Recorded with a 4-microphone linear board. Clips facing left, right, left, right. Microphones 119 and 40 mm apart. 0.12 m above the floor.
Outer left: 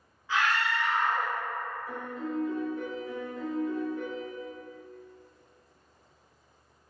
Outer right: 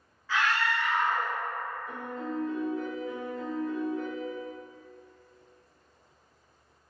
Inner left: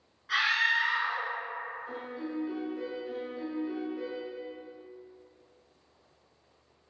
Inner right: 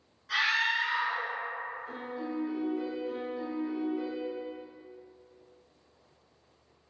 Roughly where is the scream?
Centre.